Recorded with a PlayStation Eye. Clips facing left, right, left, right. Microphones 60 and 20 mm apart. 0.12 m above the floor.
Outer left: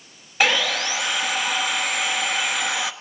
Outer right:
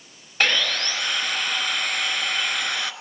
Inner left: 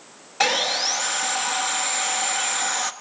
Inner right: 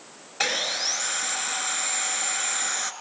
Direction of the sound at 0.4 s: 5° left (ahead or behind).